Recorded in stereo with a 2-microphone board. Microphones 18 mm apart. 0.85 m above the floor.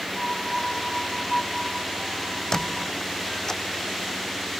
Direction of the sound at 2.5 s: 30° left (ahead or behind).